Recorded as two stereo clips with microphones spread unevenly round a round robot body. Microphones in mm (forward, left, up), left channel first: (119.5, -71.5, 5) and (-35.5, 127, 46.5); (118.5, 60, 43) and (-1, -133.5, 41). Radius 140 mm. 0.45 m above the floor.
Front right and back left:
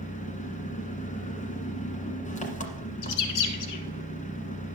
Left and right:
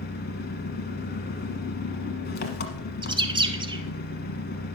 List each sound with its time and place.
0.0 s an engine running: 10° left, 1.4 m
3.0 s a bird: 50° right, 1.0 m